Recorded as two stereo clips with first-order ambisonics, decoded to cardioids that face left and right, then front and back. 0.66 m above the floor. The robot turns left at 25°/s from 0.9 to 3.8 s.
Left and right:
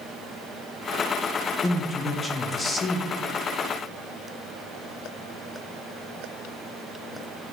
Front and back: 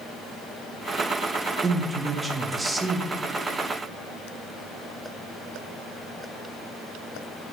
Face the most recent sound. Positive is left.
turn(degrees=85)